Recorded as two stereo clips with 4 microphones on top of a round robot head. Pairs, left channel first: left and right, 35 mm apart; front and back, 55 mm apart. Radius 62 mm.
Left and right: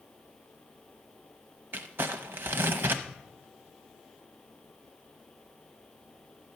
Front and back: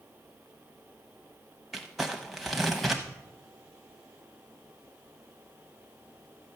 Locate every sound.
1.7 s crumpling: 90° right, 0.6 m